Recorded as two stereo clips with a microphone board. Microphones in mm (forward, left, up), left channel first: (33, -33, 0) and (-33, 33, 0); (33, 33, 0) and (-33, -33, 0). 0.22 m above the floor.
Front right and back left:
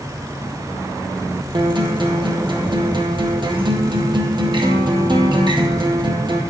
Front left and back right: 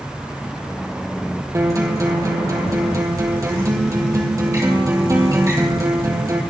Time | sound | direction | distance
1.5 | a guitar | 170° left | 2 m